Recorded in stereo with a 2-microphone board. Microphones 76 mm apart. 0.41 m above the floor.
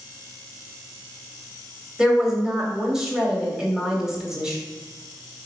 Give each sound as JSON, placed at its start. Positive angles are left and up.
{"t": 2.0, "sound": "a woman speaking", "side_deg": -10, "distance_m": 1.8}